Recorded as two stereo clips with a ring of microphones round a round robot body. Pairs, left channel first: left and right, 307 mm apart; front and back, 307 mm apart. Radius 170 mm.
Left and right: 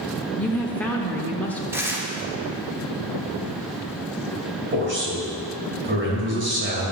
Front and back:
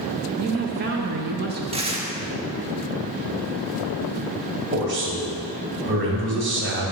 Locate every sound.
0.3 s a woman speaking: 170° left, 0.9 m
1.7 s tearing paper: 155° right, 1.2 m
4.7 s a man speaking: 135° right, 2.5 m